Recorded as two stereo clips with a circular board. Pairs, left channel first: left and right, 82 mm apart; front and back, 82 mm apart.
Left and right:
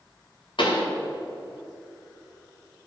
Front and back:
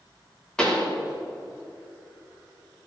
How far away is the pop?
About 2.0 m.